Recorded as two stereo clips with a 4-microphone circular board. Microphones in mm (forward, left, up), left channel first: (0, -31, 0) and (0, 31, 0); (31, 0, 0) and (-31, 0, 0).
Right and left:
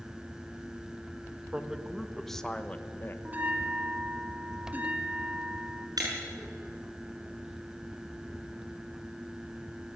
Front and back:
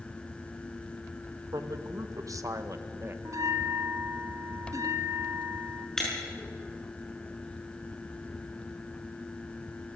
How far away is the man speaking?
About 1.4 m.